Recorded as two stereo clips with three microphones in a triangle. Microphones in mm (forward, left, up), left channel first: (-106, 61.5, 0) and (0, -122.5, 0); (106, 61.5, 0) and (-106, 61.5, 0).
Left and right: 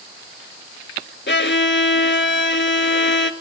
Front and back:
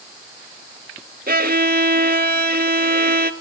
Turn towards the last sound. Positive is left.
turn(degrees=140)